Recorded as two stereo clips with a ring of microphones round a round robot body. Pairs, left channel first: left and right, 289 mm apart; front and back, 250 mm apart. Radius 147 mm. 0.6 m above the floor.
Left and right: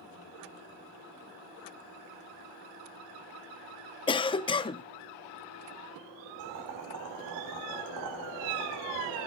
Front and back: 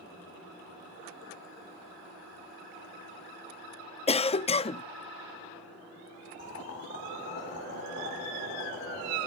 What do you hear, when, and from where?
4.1 s a cough: 35° left, 0.6 m
6.4 s boiling: 55° right, 3.5 m